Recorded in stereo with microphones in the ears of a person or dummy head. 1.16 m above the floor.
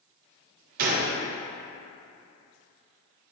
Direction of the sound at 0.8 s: 45° right (ahead or behind).